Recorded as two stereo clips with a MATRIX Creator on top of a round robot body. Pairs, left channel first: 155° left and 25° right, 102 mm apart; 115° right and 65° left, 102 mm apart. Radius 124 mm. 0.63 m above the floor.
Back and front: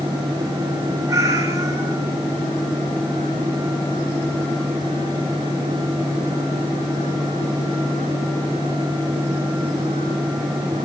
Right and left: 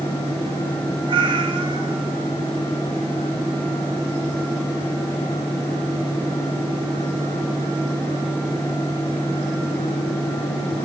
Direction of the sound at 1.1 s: 30° left.